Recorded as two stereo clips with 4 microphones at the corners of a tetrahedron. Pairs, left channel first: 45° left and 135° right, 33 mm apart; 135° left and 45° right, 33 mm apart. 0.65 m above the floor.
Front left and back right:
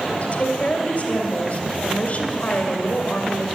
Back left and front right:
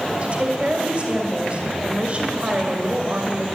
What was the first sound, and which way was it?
A woman speaking, 5° left.